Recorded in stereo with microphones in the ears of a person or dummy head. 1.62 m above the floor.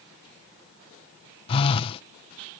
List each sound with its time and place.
1.5 s a phone buzzing: 35° left (ahead or behind)